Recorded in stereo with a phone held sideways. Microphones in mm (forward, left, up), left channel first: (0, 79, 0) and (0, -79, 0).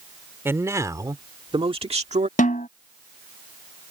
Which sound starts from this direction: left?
A snare drum, at 2.4 s.